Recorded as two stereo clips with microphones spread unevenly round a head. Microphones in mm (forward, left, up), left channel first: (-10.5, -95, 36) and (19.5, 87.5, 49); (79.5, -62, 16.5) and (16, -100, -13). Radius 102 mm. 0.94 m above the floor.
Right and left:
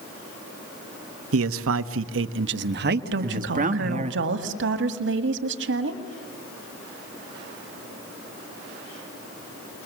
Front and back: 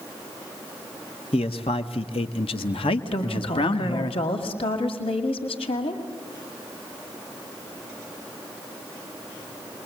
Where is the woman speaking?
55° left, 1.7 m.